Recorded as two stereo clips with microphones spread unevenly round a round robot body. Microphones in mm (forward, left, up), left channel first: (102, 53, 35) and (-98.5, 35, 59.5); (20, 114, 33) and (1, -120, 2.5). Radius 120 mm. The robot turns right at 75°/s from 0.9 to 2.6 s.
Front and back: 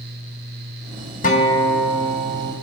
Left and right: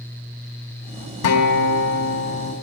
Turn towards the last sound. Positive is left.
turn(degrees=155)